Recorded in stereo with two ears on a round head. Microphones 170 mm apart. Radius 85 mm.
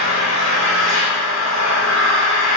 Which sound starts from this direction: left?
An engine running, at 0.0 s.